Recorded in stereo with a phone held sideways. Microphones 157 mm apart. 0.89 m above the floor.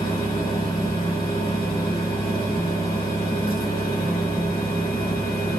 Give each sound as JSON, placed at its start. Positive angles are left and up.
{"t": 0.0, "sound": "a fan", "side_deg": 70, "distance_m": 1.9}